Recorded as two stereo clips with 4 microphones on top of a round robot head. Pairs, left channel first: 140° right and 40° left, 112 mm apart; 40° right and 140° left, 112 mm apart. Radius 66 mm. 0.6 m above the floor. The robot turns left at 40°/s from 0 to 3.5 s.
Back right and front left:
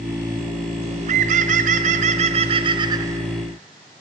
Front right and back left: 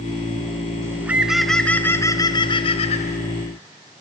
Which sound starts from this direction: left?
A bird, at 0.8 s.